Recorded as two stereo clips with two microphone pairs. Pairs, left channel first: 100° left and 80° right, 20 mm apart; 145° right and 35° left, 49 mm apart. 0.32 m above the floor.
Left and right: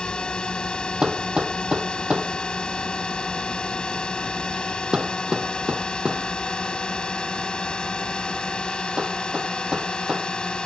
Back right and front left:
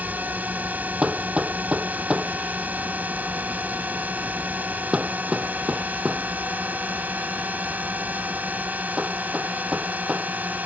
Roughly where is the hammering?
Ahead right.